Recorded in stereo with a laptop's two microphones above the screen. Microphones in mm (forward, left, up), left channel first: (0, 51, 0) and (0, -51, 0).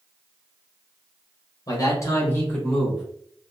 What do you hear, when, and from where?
1.7 s a man speaking: 40° left (ahead or behind), 0.9 m; by 3.0 s centre (ahead or behind), 1.2 m